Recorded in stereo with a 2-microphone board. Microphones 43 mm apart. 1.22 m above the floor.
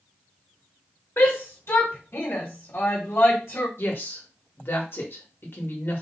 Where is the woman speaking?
60° left (ahead or behind), 1.2 m.